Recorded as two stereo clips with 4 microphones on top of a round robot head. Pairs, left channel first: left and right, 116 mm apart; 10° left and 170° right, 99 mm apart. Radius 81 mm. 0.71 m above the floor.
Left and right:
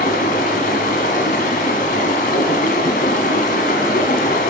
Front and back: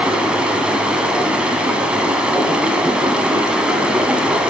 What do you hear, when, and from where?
0.0 s running water: 115° left, 1.1 m